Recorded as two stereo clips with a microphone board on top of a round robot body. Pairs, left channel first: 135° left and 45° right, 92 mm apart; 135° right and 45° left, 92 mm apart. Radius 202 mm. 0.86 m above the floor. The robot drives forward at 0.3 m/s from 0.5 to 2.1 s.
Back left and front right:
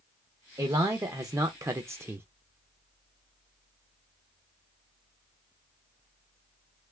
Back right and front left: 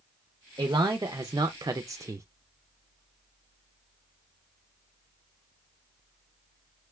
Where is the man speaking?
5° left, 0.9 m; by 2.2 s 10° left, 0.5 m.